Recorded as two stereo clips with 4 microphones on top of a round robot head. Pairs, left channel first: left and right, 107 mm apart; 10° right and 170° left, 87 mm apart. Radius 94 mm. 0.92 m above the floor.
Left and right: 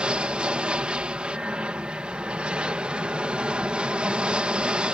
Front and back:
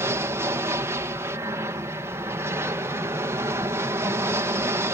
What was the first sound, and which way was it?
An aircraft, 165° right.